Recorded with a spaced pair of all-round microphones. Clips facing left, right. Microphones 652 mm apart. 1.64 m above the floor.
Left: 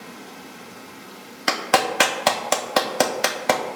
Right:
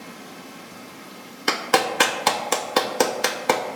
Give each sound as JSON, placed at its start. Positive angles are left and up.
{"t": 0.0, "sound": "running water", "side_deg": -5, "distance_m": 1.0}
{"t": 1.5, "sound": "a clap", "side_deg": 15, "distance_m": 0.5}